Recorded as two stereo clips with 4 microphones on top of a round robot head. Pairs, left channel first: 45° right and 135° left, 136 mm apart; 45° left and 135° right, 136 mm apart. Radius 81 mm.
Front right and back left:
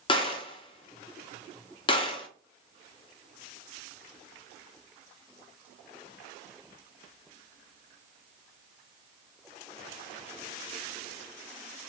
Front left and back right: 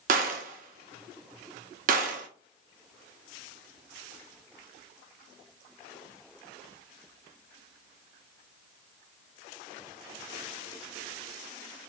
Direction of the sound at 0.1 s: 100° right.